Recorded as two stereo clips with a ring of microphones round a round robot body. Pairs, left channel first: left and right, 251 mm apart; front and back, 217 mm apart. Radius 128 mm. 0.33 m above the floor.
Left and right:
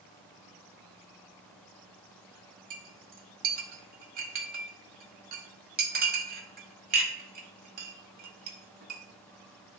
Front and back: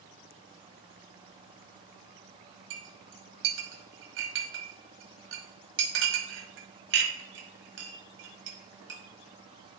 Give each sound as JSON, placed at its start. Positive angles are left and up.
{"t": 2.7, "sound": "a clink", "azimuth_deg": -145, "distance_m": 1.2}